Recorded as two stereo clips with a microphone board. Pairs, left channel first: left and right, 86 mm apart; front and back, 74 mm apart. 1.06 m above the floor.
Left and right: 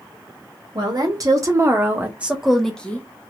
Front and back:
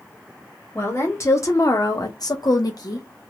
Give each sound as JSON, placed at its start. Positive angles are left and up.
{"t": 0.8, "sound": "a woman speaking", "azimuth_deg": -55, "distance_m": 1.3}